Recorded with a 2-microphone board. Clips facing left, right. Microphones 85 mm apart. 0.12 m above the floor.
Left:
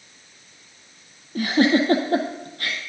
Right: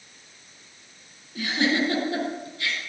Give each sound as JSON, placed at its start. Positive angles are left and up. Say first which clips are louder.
{"t": 1.4, "sound": "a giggle", "louder": "left 6 dB", "side_deg": 50, "distance_m": 2.5}